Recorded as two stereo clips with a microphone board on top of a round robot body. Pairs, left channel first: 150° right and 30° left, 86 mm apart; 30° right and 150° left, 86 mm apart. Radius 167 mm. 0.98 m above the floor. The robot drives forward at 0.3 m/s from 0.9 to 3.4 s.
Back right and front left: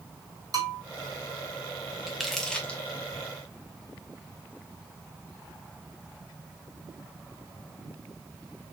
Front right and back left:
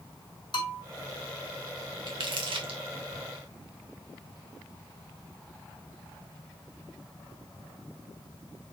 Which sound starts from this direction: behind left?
Crumpling, at 2.1 s.